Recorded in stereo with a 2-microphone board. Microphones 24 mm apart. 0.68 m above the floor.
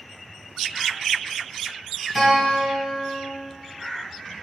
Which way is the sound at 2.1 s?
5° left (ahead or behind).